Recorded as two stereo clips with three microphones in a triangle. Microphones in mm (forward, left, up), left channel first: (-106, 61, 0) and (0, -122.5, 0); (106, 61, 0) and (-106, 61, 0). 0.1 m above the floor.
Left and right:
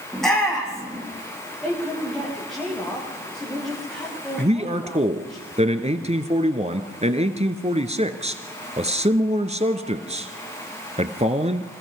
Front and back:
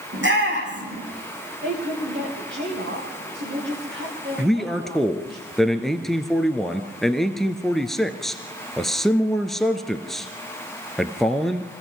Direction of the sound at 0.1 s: 150° right.